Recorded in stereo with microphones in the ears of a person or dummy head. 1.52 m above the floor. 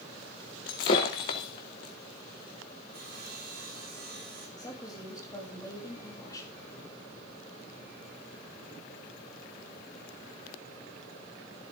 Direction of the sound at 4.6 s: 15° left (ahead or behind).